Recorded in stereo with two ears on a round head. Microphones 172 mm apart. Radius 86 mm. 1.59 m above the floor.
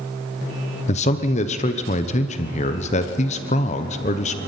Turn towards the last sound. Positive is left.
turn(degrees=35)  # may be behind; listen again after turning